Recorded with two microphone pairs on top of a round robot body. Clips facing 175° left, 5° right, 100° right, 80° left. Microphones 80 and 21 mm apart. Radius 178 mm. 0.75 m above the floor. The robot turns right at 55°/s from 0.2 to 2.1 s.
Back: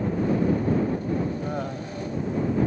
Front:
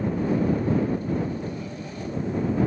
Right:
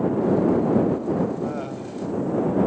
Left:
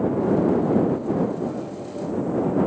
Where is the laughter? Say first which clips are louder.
Back 3 dB, even; 160° right; by 2.1 s 125° right.